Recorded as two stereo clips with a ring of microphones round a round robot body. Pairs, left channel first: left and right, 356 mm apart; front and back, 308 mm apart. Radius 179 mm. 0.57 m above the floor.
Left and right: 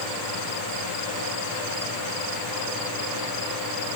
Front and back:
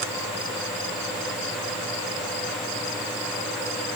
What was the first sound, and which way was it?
Only background noise.